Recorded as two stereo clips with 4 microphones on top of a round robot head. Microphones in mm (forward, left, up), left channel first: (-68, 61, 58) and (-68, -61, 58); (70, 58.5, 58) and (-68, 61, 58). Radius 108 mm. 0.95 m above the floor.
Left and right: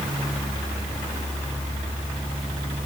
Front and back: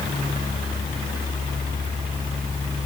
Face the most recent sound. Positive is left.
No sound to turn to.